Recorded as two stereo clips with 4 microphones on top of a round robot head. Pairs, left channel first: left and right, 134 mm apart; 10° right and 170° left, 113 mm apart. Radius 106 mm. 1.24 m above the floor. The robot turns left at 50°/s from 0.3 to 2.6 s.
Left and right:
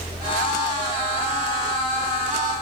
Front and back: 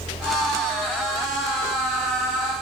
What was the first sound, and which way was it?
Only background noise.